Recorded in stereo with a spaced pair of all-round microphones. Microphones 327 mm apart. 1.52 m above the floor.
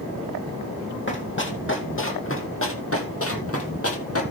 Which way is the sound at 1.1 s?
30° left (ahead or behind).